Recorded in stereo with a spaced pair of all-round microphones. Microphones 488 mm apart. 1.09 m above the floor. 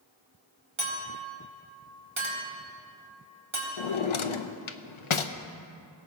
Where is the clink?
70° right (ahead or behind), 1.9 m.